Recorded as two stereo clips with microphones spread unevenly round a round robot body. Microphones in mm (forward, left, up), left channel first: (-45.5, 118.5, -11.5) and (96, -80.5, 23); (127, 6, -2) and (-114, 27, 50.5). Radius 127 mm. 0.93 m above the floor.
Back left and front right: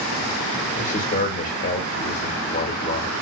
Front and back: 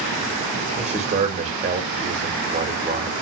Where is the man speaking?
110° left, 0.9 m.